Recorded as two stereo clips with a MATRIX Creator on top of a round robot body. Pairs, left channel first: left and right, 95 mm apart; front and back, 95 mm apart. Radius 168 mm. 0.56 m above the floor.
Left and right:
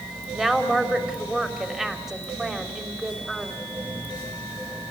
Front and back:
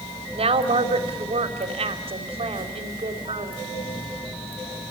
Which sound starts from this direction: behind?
A woman speaking, at 0.3 s.